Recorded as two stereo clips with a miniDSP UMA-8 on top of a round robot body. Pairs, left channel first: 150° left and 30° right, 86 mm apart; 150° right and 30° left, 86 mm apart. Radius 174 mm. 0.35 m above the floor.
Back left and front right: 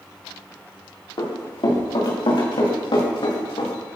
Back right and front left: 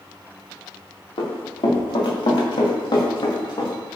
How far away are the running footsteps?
About 4.5 m.